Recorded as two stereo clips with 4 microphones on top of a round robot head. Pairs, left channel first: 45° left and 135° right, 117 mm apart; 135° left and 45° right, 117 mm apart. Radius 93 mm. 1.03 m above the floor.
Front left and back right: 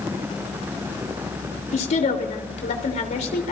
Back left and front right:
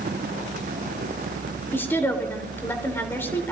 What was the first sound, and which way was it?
A woman speaking, 60° left.